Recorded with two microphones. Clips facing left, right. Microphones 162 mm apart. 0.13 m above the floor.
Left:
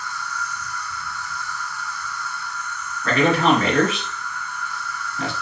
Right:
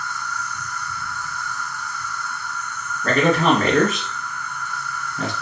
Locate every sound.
0.0 s an insect: 50° right (ahead or behind), 1.3 m
3.0 s a man speaking: 45° right (ahead or behind), 1.8 m